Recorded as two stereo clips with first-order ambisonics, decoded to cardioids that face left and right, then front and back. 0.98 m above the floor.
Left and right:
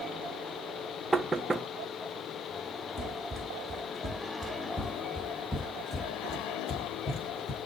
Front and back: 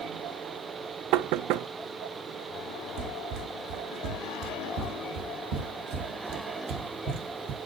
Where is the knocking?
170° right, 0.5 m.